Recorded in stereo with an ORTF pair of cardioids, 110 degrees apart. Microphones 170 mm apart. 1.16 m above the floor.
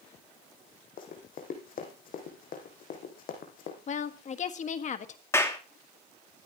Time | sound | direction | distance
1.0 | running footsteps | 60° left | 3.5 m
3.9 | a woman speaking | 45° left | 1.5 m
5.3 | a clap | 15° left | 2 m